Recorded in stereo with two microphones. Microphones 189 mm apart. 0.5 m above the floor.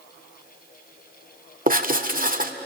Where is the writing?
45° right (ahead or behind), 1.6 m.